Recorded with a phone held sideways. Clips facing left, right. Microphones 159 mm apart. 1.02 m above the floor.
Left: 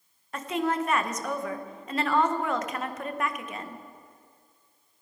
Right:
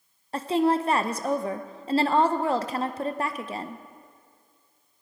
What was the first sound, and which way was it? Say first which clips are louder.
A woman speaking: right 5 dB; 30° right (ahead or behind).